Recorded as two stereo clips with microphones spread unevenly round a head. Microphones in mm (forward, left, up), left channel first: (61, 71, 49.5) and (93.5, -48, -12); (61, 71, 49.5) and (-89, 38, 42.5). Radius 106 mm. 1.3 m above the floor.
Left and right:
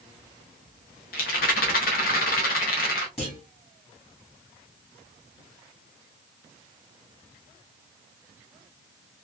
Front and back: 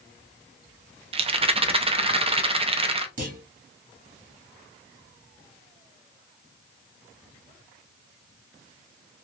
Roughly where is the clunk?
Behind.